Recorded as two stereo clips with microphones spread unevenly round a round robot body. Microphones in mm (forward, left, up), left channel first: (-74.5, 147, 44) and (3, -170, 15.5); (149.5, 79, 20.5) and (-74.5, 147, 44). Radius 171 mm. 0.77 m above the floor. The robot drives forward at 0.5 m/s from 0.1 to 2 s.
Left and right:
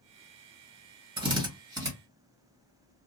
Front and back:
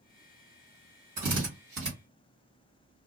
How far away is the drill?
About 1.5 m.